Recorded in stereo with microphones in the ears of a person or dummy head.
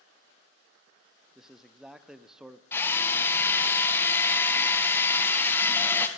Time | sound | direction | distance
1.4 | a man speaking | 5° right (ahead or behind) | 0.5 m
2.7 | a drill | 10° left (ahead or behind) | 0.7 m